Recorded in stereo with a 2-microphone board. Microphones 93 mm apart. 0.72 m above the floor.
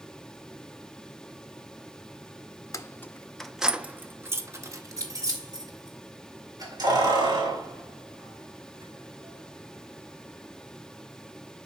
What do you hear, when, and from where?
2.7 s keys jangling: 35° left (ahead or behind), 0.5 m; by 10.6 s 50° right (ahead or behind), 4 m